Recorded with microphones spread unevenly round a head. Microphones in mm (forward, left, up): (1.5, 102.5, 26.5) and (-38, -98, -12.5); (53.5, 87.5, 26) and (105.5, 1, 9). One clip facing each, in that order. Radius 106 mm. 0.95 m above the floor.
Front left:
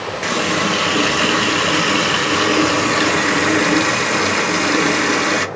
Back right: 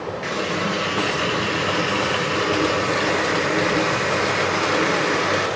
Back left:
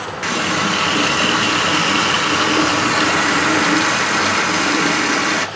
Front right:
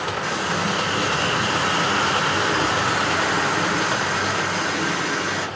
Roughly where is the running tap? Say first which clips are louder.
Front left 6 dB, back left 8 dB; left.